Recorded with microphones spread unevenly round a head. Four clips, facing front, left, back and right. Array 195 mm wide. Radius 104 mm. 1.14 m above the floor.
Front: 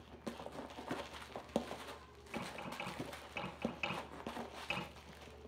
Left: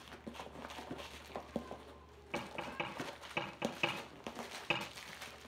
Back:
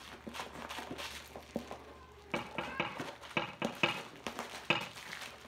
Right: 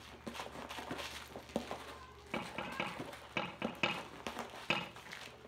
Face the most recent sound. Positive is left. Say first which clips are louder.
# right 1 dB, back 6 dB
turn(degrees=-160)